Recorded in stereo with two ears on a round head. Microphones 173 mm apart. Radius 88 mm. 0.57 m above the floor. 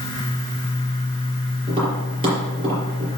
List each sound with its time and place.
1.7 s tapping: 25° right (ahead or behind), 5.5 m